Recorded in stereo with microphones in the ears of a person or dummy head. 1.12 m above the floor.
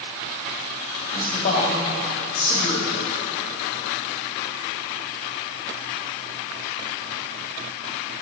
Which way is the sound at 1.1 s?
50° left (ahead or behind).